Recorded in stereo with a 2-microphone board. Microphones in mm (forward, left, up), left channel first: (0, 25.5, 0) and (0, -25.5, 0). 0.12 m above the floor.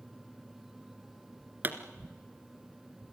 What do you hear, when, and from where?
1.6 s a pop: 40° right (ahead or behind), 1.6 m